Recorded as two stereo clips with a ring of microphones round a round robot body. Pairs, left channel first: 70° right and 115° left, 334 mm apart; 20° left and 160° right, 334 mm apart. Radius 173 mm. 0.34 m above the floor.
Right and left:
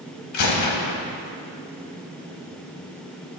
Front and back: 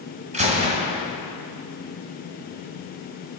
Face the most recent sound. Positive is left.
turn(degrees=-90)